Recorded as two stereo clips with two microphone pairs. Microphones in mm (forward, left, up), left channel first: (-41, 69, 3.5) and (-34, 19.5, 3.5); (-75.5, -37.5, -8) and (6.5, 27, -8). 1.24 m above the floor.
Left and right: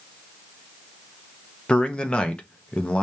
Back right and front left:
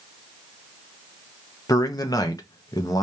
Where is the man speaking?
165° left, 0.9 m.